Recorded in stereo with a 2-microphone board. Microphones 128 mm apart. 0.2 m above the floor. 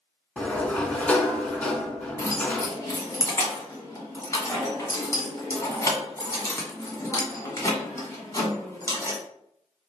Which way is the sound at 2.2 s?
25° left (ahead or behind).